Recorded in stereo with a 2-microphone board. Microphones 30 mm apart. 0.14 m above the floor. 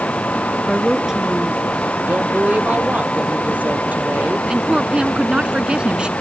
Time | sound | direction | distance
0.7 | a woman speaking | 5° right (ahead or behind) | ?
2.1 | a woman speaking | 60° right (ahead or behind) | ?
4.5 | a woman speaking | 35° right (ahead or behind) | ?